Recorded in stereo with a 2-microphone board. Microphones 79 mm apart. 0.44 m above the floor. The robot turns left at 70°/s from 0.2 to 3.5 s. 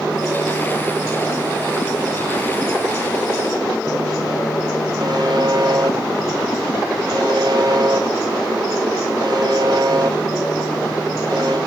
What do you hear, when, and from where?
5.0 s a buzzer: 65° right (ahead or behind), 2 m